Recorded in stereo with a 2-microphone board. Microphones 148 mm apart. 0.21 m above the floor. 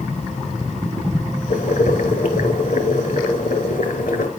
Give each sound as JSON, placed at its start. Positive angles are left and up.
{"t": 1.5, "sound": "boiling", "side_deg": 70, "distance_m": 1.2}